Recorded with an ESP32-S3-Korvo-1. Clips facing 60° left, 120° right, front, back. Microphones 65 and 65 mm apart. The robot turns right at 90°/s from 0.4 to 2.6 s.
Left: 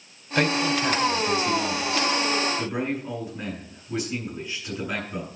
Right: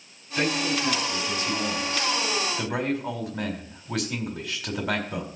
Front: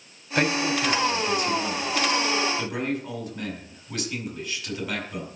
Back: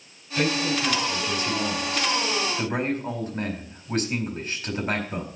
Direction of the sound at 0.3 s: 30° left.